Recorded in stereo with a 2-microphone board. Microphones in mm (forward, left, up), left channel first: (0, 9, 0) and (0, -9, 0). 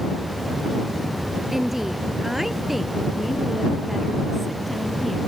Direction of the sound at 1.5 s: 20° right (ahead or behind).